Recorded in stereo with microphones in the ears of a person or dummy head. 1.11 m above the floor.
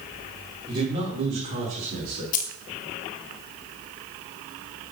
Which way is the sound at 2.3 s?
50° left (ahead or behind).